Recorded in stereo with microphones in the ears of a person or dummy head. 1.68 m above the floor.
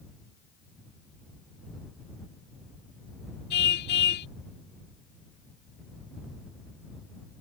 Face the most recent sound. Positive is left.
turn(degrees=55)  # may be behind; listen again after turning